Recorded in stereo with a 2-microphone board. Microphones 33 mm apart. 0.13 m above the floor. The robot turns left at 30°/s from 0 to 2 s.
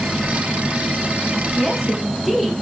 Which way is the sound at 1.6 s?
5° left (ahead or behind).